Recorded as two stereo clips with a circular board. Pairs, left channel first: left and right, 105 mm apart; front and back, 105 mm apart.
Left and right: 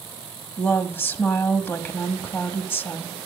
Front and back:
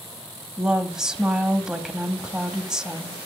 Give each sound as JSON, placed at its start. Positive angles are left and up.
{"t": 0.6, "sound": "a woman speaking", "azimuth_deg": 105, "distance_m": 0.9}